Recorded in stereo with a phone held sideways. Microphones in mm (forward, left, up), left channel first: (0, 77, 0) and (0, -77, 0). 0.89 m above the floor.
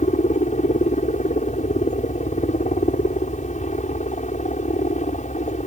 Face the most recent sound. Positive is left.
turn(degrees=50)  # may be behind; listen again after turning